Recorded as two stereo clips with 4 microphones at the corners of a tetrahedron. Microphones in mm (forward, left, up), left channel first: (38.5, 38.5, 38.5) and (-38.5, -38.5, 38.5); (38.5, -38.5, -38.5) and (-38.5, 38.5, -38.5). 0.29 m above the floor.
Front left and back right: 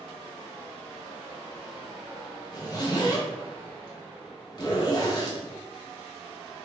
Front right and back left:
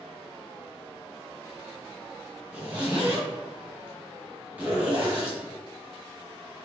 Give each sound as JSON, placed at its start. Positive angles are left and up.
{"t": 2.5, "sound": "a zipper", "azimuth_deg": 70, "distance_m": 1.5}